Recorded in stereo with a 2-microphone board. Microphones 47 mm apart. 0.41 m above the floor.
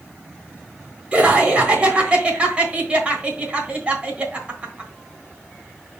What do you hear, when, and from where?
1.1 s laughter: 25° right (ahead or behind), 3.5 m